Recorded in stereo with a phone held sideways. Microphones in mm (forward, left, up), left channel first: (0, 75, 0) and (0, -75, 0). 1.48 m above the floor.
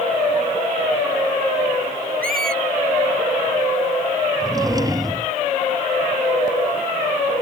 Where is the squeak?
75° right (ahead or behind).